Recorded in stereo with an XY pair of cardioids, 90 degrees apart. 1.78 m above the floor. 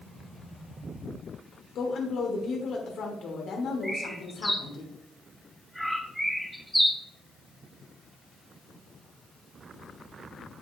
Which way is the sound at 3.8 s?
10° right.